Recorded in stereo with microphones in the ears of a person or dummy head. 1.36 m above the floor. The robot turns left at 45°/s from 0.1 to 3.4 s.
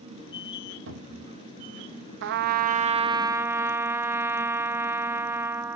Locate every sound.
0.9 s a cupboard door: 60° right (ahead or behind), 1.4 m; by 1.4 s 40° right (ahead or behind), 1.4 m
2.2 s a trumpet: 115° right, 0.5 m; by 5.8 s 170° right, 0.5 m